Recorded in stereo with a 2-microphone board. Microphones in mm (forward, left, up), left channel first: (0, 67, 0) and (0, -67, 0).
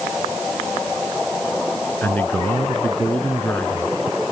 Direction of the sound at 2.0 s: 15° left (ahead or behind).